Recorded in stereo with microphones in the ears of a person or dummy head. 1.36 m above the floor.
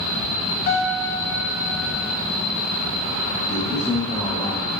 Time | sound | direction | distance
0.7 | a piano | 75° left (ahead or behind) | 3 m
3.5 | a man speaking | 15° left (ahead or behind) | 2.5 m